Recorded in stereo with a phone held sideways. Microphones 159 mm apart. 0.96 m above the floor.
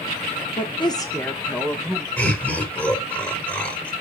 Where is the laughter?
15° left (ahead or behind), 2.5 m.